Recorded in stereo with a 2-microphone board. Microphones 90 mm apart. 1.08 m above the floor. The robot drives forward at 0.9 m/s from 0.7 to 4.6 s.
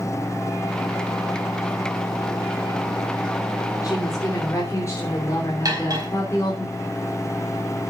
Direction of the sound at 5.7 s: 40° right (ahead or behind).